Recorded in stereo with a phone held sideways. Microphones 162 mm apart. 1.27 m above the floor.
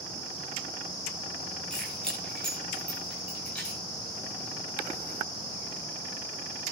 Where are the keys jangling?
5° left (ahead or behind), 9.5 m; by 3.8 s 10° left (ahead or behind), 11 m.